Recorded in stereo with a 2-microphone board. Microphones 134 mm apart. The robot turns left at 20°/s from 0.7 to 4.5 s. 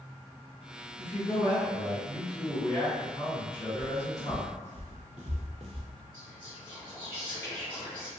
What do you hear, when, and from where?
1.0 s a man speaking: 160° left, 1.5 m; by 4.5 s 90° left, 1.5 m
3.8 s footsteps: 55° right (ahead or behind), 1.2 m; by 5.9 s 45° right (ahead or behind), 0.7 m
6.1 s whispering: 15° left (ahead or behind), 1.6 m